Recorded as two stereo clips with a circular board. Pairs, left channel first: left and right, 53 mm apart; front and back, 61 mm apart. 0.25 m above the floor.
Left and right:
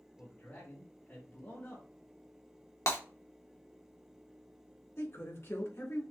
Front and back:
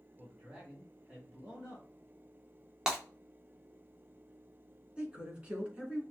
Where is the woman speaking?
110° left, 2 m.